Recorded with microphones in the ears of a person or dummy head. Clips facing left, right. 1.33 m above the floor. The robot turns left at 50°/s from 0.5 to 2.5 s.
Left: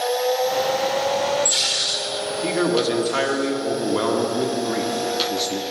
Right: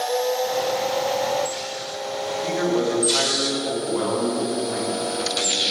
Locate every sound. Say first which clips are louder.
2.4 s a man speaking: left 2 dB; 75° left (ahead or behind), 2 m; by 5.6 s 70° left (ahead or behind), 2 m